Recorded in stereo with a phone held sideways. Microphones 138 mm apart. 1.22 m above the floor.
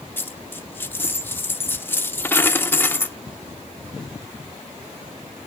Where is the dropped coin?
15° left (ahead or behind), 0.8 m.